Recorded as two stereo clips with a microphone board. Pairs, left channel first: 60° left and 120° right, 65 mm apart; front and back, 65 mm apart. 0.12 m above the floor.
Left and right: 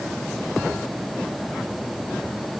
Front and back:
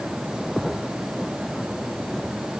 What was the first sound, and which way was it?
Only background noise.